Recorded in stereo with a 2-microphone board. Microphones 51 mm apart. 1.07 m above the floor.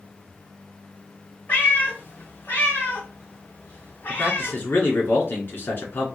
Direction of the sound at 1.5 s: 35° left (ahead or behind).